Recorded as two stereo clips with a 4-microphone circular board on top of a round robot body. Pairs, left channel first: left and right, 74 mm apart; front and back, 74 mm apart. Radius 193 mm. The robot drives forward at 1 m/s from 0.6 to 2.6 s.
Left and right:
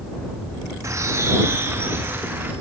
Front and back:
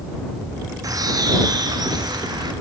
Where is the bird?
140° right, 3 m; by 2.5 s 155° right, 4.5 m.